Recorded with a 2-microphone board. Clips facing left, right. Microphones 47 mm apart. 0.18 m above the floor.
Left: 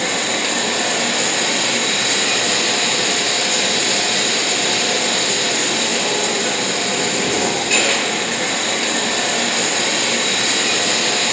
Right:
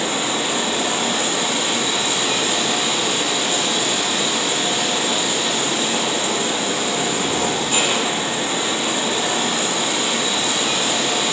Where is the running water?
70° left (ahead or behind), 1.9 m.